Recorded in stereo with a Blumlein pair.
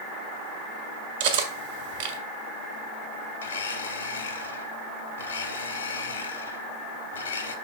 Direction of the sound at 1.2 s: 55° right.